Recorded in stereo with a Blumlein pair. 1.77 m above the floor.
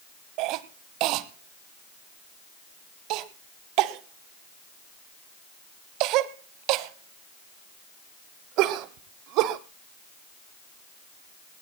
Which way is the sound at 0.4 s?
40° right.